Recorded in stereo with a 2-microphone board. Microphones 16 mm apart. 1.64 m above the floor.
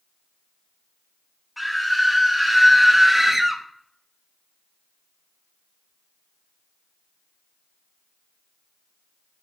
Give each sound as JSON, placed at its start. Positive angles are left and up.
{"t": 1.6, "sound": "a scream", "side_deg": -10, "distance_m": 3.5}